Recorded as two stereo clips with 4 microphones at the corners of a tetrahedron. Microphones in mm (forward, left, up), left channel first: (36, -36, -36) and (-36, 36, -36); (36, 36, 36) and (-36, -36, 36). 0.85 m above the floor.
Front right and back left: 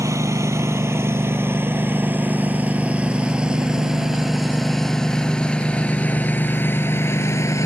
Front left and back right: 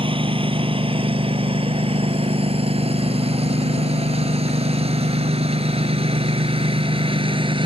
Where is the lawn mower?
165° right; by 7.7 s 105° right.